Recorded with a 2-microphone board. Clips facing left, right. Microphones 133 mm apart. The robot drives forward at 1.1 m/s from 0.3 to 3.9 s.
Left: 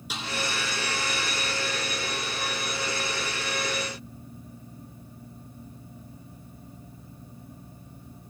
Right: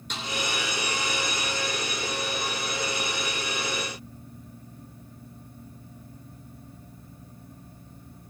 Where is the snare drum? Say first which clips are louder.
Even; 5° left (ahead or behind), 2.5 m.